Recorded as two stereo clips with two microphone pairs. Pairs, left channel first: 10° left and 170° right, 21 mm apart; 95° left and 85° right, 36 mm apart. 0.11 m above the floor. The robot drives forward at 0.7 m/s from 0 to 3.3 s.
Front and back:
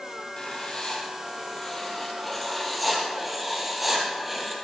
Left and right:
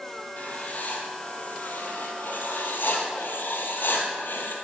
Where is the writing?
55° left, 2.5 m; by 4.5 s 105° left, 2.5 m.